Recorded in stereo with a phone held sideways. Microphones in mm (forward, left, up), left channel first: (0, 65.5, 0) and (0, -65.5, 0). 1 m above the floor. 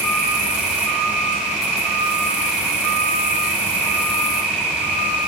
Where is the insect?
10° right (ahead or behind), 1.7 m.